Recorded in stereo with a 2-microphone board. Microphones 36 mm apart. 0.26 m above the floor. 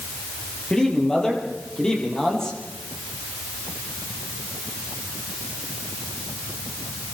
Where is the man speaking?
20° left (ahead or behind), 8.5 m.